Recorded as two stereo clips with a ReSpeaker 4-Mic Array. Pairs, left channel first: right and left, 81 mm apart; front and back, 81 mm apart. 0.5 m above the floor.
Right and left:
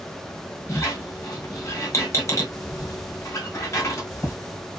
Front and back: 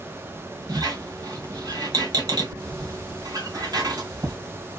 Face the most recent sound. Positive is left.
turn(degrees=-145)